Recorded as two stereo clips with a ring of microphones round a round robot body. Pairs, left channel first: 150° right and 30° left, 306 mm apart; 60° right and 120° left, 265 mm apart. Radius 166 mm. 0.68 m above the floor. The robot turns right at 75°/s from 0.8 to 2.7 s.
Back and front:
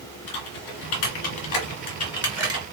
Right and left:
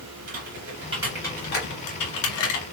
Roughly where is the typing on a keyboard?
Behind.